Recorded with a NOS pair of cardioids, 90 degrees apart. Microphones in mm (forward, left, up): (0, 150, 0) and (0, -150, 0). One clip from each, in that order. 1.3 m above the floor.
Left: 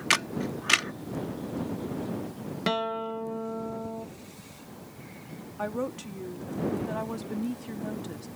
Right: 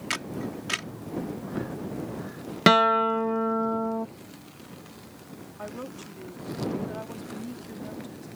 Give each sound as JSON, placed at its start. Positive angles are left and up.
{"t": 0.1, "sound": "a camera shutter", "azimuth_deg": 40}
{"t": 2.7, "sound": "a guitar", "azimuth_deg": -60}
{"t": 5.6, "sound": "a woman speaking", "azimuth_deg": 35}